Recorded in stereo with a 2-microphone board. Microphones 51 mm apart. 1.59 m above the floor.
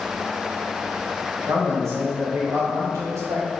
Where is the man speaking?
65° right (ahead or behind), 1.0 m.